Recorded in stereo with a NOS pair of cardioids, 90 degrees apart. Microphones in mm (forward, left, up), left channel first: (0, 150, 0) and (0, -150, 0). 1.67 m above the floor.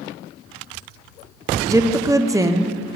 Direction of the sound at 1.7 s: 10° right.